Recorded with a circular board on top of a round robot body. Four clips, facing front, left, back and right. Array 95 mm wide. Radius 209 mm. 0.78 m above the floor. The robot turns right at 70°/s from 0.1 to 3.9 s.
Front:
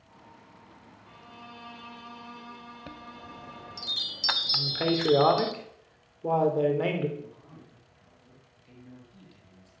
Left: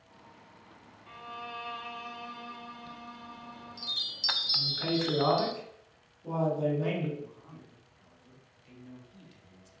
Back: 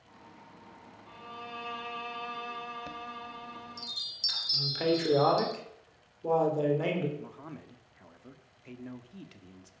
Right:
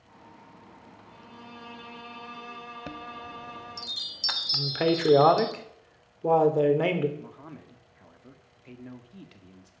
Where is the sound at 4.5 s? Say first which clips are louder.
Right 7 dB, even; 75° right, 3.5 m.